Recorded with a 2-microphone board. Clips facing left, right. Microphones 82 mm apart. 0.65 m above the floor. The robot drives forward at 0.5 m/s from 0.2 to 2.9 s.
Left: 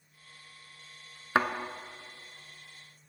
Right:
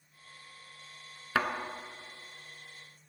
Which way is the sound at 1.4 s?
30° left (ahead or behind).